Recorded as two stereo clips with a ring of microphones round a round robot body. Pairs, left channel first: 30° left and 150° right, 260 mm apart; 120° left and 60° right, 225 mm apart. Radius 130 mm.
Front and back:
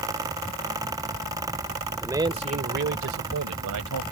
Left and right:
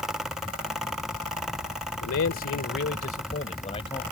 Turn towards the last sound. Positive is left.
turn(degrees=-170)